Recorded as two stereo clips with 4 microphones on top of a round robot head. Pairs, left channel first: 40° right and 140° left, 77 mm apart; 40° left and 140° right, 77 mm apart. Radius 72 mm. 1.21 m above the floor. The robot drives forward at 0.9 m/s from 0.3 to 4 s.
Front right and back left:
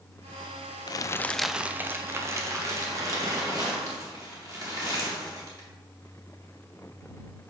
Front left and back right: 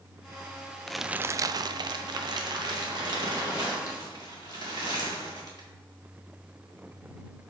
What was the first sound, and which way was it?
Crumpling, 45° right.